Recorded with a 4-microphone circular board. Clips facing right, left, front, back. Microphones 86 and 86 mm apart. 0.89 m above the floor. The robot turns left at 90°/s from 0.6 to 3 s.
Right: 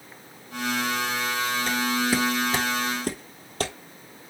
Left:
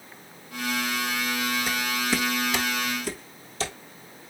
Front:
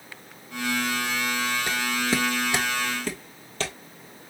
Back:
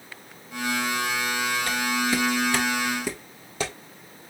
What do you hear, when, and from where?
1.7 s footsteps: 25° left, 0.8 m; by 3.7 s 105° right, 1.6 m